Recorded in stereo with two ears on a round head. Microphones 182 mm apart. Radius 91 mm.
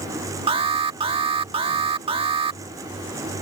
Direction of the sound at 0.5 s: 25° right (ahead or behind).